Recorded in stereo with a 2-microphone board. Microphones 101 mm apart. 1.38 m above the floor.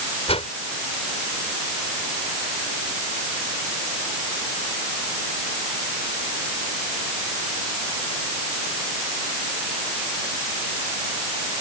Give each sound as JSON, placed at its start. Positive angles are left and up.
{"t": 0.3, "sound": "a whoosh", "side_deg": 80}